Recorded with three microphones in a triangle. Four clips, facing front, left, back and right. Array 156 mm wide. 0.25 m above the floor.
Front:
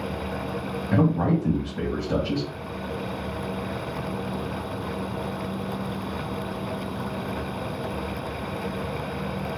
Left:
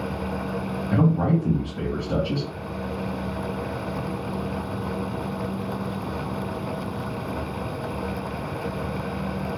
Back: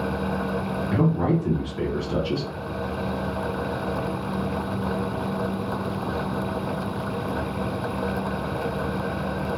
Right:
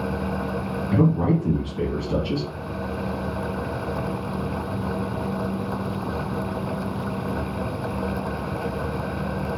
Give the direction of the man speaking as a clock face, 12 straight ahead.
11 o'clock.